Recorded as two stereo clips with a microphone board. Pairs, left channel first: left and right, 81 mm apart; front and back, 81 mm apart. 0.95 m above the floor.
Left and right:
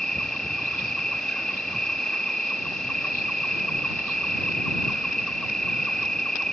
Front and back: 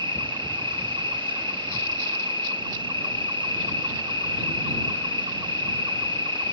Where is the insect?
170° left.